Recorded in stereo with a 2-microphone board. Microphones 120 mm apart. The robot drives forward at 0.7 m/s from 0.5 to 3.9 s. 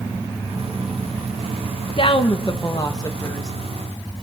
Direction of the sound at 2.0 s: 50° left (ahead or behind).